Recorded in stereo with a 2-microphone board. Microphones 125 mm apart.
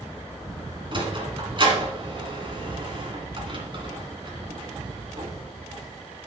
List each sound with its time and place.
0.9 s a sliding door: 40° right (ahead or behind), 2 m